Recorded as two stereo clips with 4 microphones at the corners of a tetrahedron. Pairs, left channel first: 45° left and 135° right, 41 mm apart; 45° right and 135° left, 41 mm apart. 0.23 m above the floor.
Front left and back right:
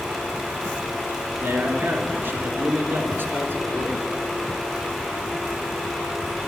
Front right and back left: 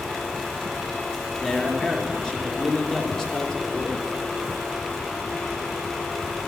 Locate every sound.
1.4 s a man speaking: 110° right, 3 m